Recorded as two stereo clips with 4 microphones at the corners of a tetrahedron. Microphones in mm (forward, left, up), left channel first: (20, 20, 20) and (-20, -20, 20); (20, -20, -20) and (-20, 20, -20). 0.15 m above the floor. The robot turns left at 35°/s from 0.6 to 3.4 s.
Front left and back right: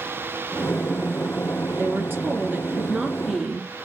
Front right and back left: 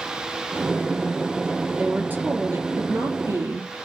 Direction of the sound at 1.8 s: 165° right.